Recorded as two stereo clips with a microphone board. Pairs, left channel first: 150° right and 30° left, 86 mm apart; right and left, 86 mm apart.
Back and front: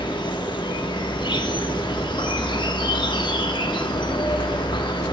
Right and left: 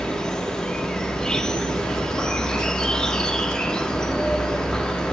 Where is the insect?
170° right, 1.0 m.